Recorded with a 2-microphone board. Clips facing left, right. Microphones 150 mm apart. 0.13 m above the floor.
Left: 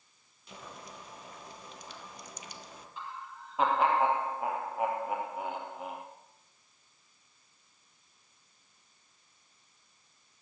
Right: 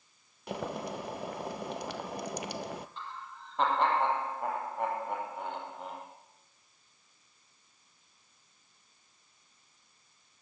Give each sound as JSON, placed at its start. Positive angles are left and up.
{"t": 0.5, "sound": "boiling", "side_deg": -70, "distance_m": 0.7}
{"t": 3.0, "sound": "laughter", "side_deg": 5, "distance_m": 3.0}